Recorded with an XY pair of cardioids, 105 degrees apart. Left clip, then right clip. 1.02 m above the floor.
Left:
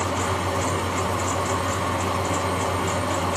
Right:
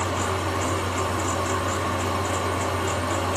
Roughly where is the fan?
Ahead left.